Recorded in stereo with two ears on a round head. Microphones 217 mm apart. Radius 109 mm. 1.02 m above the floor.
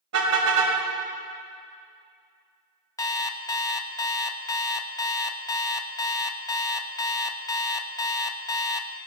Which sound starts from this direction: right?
A car horn, at 0.1 s.